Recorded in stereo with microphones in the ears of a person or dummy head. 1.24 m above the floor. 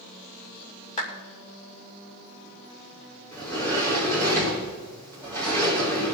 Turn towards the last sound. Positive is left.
turn(degrees=10)  # may be behind; listen again after turning